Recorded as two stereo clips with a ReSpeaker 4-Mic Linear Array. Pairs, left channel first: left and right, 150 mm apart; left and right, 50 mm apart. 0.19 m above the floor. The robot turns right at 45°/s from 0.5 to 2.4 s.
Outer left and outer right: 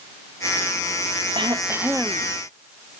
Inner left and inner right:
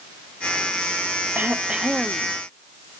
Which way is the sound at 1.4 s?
35° right.